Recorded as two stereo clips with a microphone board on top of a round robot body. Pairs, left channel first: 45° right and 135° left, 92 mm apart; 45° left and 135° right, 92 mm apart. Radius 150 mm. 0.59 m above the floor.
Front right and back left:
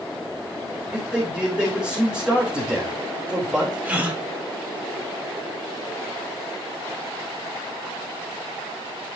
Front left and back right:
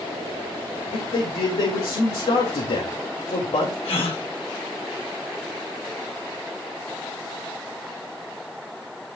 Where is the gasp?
60° left, 1.9 m.